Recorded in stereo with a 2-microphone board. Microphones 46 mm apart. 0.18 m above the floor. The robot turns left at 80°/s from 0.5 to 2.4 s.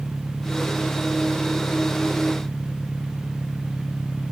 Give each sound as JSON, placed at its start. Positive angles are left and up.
{"t": 0.0, "sound": "an engine running", "azimuth_deg": 175}